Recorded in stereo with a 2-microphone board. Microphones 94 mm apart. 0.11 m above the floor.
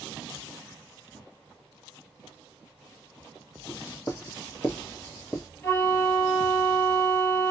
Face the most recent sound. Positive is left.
turn(degrees=20)  # may be behind; listen again after turning